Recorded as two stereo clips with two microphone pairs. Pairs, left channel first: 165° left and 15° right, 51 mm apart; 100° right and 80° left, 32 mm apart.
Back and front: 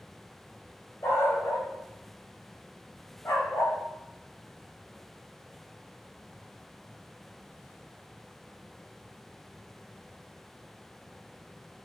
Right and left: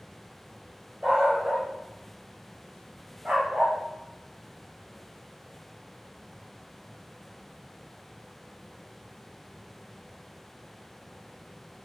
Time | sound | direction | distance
1.0 | a dog barking | 140° left | 7.5 m